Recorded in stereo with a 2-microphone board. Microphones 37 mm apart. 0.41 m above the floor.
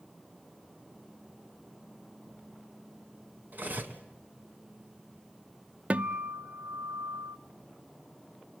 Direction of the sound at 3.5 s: 55° right (ahead or behind).